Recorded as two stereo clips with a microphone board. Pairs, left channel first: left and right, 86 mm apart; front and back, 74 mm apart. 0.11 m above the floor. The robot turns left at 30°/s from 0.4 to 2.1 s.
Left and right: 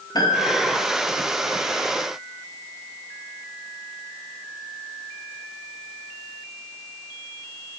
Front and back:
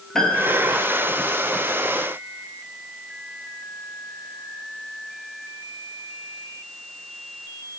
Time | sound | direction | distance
0.1 | a piano | 80° left | 1.1 m